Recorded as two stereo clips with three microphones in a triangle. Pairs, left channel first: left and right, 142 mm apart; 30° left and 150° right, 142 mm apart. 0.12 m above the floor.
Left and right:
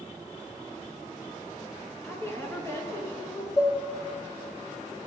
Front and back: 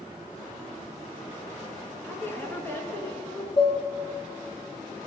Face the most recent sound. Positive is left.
turn(degrees=40)